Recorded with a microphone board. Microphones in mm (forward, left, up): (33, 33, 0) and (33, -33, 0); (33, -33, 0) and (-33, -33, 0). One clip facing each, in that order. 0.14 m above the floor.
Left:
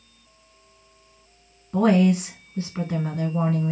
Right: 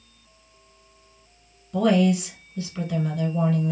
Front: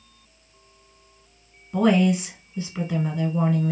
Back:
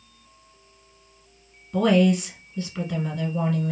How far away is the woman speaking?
About 1.3 m.